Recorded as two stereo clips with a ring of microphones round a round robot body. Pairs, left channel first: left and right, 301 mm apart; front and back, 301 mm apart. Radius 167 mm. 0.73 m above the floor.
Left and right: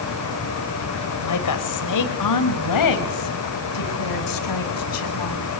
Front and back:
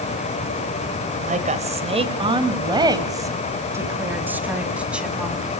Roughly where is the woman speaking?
Behind left.